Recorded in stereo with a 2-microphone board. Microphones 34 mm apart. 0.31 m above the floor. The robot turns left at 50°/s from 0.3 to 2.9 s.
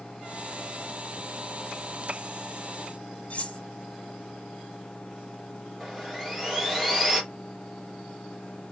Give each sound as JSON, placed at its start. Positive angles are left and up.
{"t": 3.3, "sound": "cutlery clinking", "side_deg": 45, "distance_m": 1.7}
{"t": 5.8, "sound": "sawing", "side_deg": 0, "distance_m": 4.0}